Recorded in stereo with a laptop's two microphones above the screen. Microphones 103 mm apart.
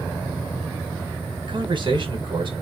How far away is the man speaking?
About 1.2 m.